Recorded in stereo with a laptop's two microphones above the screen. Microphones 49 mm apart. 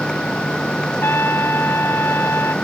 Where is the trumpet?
55° left (ahead or behind).